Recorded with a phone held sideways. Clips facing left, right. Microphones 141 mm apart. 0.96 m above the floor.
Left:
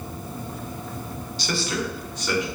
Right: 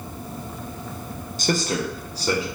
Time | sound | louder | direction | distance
1.4 | a man speaking | right 4 dB | 50° right (ahead or behind) | 0.6 m